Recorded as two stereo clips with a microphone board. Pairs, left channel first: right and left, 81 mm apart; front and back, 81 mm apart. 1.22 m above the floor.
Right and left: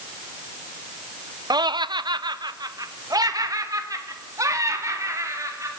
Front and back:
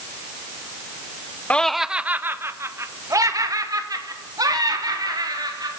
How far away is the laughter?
About 0.6 m.